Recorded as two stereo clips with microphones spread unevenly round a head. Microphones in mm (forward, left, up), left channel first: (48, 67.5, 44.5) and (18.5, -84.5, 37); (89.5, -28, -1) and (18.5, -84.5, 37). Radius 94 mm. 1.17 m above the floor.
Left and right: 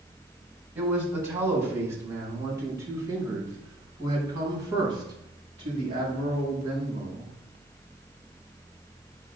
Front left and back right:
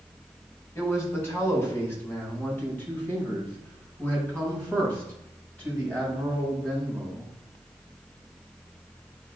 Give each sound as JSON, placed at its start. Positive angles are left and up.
{"t": 0.8, "sound": "a man speaking", "azimuth_deg": -25, "distance_m": 4.0}